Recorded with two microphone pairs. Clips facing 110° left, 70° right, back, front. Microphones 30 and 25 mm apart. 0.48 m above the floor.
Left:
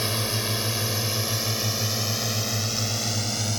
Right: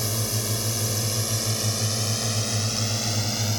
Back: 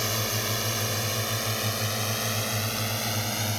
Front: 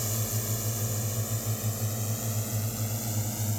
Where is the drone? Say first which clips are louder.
Left 2 dB, back 6 dB; 155° left; by 3.6 s 150° right.